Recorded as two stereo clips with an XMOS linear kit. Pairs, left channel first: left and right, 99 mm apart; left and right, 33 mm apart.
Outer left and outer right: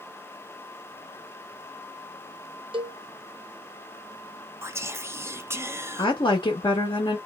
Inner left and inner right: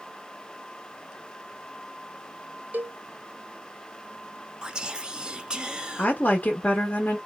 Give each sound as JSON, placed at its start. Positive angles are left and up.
{"t": 2.7, "sound": "a cowbell", "side_deg": -60, "distance_m": 0.8}
{"t": 4.6, "sound": "whispering", "side_deg": -25, "distance_m": 0.5}
{"t": 6.0, "sound": "a woman speaking", "side_deg": 50, "distance_m": 0.9}